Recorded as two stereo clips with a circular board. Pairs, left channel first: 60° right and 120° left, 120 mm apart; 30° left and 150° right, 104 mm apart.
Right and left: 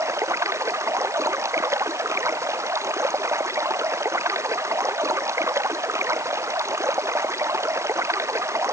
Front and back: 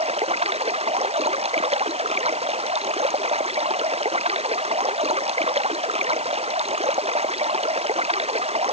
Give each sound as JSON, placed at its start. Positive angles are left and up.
{"t": 0.0, "sound": "running water", "azimuth_deg": -175}